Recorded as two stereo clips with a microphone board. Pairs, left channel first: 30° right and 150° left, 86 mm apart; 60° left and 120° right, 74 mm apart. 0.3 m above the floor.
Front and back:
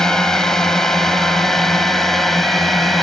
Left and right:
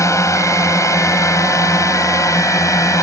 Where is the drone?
50° left; by 3.0 s 60° left.